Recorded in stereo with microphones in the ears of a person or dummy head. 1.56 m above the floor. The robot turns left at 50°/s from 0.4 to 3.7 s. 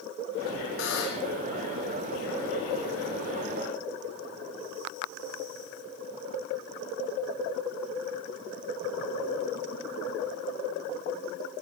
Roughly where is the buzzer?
Left.